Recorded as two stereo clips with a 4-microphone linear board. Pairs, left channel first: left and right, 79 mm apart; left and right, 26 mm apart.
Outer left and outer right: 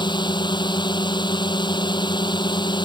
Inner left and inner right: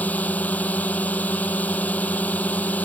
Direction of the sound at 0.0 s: 70° left (ahead or behind).